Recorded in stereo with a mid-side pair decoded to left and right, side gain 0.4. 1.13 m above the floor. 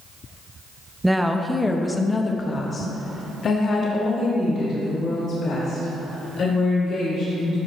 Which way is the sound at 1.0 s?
10° right.